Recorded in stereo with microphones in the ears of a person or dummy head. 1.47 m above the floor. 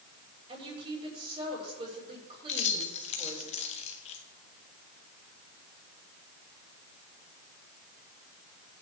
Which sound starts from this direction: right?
A woman speaking, at 0.5 s.